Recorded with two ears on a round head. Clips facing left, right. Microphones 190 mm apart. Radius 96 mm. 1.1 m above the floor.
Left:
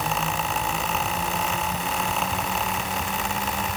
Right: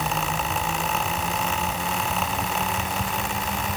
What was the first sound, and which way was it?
Only background noise.